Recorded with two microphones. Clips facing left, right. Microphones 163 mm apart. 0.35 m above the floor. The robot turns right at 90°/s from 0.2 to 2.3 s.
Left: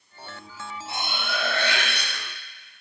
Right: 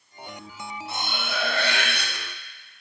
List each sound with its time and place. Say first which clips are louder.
0.9 s cutlery clinking: left 1 dB; 155° left, 0.9 m; by 2.1 s 95° right, 0.9 m